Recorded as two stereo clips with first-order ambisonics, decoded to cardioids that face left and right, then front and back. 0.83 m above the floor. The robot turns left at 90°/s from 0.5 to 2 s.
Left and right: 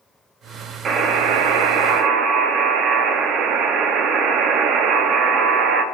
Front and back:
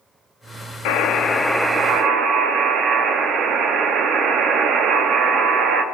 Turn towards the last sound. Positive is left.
turn(degrees=-130)